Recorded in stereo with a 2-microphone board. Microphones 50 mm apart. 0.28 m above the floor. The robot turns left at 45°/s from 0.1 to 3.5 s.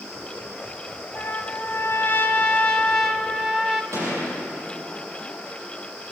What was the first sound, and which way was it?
A trumpet, 100° left.